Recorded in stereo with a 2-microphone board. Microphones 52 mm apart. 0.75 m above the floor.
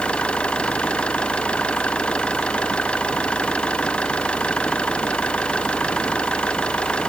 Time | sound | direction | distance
0.0 | an engine running | 20° left (ahead or behind) | ?